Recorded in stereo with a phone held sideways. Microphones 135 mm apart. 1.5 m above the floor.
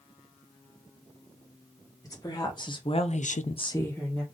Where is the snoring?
I don't hear snoring.